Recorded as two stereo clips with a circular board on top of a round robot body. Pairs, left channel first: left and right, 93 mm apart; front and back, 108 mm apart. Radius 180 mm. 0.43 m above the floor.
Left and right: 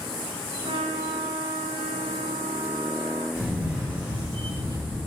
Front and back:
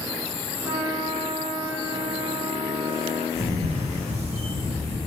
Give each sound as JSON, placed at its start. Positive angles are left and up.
{"t": 0.6, "sound": "a trumpet", "azimuth_deg": -115, "distance_m": 2.5}
{"t": 3.4, "sound": "a camera shutter", "azimuth_deg": -165, "distance_m": 3.0}